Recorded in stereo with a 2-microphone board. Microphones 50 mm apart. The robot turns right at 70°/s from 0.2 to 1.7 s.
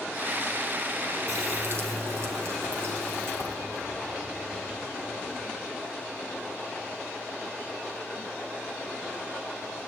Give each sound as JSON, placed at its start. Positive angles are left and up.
{"t": 1.3, "sound": "a running tap", "side_deg": -85, "distance_m": 4.5}